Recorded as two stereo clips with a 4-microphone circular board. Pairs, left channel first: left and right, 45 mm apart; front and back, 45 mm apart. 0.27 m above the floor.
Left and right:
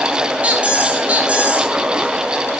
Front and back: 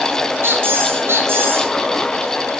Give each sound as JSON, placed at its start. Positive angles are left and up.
{"t": 0.4, "sound": "a squeak", "azimuth_deg": -150, "distance_m": 0.9}